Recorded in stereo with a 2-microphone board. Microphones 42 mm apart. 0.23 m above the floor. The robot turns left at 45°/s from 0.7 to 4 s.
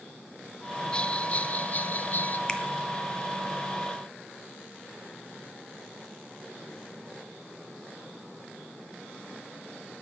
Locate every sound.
0.9 s a bell: 145° left, 0.6 m; by 2.4 s 80° left, 0.6 m
2.5 s a finger snap: 20° left (ahead or behind), 1.0 m; by 2.6 s 15° left (ahead or behind), 1.0 m